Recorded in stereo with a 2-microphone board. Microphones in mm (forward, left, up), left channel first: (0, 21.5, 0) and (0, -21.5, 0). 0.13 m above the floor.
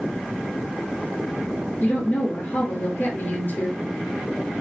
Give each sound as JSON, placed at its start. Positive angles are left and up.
{"t": 1.8, "sound": "a woman speaking", "side_deg": 55, "distance_m": 1.9}